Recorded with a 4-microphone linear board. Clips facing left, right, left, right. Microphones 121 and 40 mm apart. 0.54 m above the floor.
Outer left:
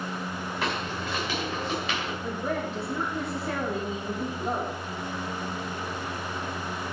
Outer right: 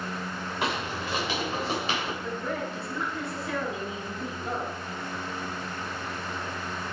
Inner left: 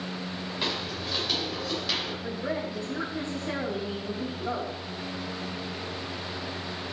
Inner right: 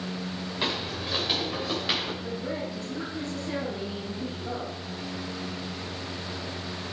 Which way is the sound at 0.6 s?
20° right (ahead or behind).